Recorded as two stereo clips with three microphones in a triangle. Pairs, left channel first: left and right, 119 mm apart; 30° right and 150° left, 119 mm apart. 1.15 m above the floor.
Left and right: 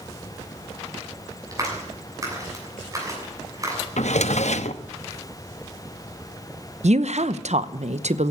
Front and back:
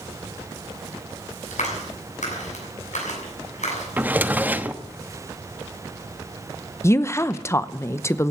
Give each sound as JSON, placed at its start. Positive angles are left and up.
{"t": 1.5, "sound": "a clap", "azimuth_deg": -30, "distance_m": 7.0}
{"t": 4.0, "sound": "a drawer", "azimuth_deg": 75, "distance_m": 0.9}
{"t": 6.8, "sound": "a woman speaking", "azimuth_deg": -95, "distance_m": 0.8}